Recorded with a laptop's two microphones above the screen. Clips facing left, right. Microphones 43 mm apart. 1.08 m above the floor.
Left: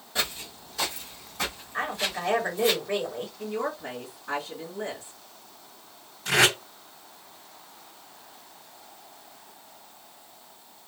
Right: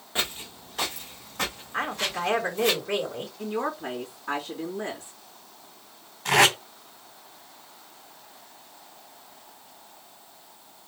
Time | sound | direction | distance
0.1 | footsteps | 35° right (ahead or behind) | 1.3 m
1.7 | a woman speaking | 75° right (ahead or behind) | 3 m
3.4 | a woman speaking | 70° right (ahead or behind) | 2.5 m
6.2 | tape being pulled | 75° right (ahead or behind) | 3 m